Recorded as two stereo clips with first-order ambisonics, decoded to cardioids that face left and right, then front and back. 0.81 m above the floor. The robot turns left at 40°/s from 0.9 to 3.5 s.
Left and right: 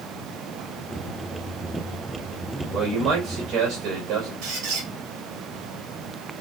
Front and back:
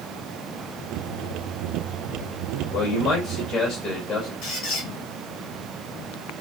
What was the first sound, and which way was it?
A man speaking, 20° right.